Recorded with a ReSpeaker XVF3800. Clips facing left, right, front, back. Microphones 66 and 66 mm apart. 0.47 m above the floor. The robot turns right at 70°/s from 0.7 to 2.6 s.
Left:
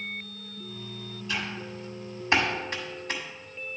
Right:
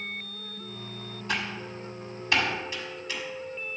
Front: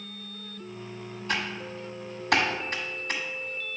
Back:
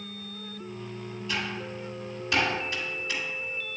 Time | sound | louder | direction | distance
1.3 | typing on a keyboard | right 2 dB, front 2 dB | 50° right | 1.2 m